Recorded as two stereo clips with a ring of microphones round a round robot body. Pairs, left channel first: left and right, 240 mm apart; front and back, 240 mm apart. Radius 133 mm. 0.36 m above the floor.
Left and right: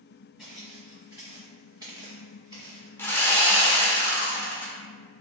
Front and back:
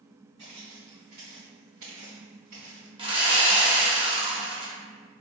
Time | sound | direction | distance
0.4 | footsteps | 175° right | 1.8 m
3.0 | sawing | 160° left | 0.9 m